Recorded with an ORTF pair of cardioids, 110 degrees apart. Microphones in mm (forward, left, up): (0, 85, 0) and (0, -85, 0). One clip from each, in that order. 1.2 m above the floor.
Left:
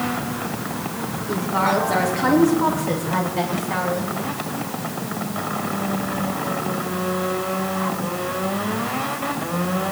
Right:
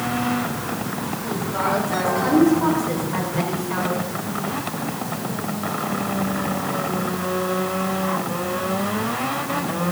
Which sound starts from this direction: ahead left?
A woman speaking, at 1.3 s.